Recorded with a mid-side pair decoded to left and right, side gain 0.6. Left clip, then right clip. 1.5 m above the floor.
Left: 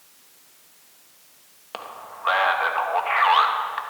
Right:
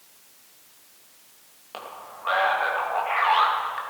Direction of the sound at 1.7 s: 30° left.